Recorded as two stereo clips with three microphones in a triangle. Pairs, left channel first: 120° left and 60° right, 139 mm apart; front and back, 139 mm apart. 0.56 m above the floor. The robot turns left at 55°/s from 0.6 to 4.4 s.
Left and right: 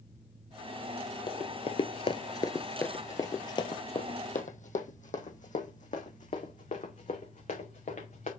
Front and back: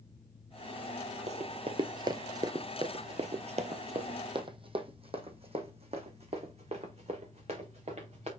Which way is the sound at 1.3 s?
165° left.